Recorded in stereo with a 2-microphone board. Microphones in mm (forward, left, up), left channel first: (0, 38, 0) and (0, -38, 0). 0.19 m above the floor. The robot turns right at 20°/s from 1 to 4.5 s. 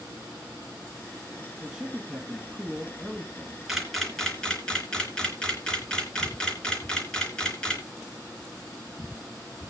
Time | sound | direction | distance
1.6 | a man speaking | 20° right | 1.7 m
3.7 | a camera shutter | 5° right (ahead or behind) | 3 m